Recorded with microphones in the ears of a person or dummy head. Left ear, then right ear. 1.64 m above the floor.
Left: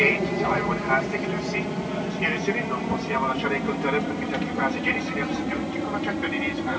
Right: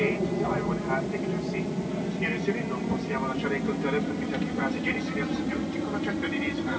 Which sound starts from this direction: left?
An aircraft, at 0.0 s.